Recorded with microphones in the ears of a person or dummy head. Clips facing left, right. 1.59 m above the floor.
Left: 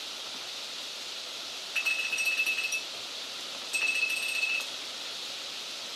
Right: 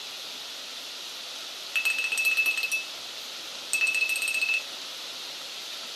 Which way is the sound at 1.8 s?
45° right (ahead or behind).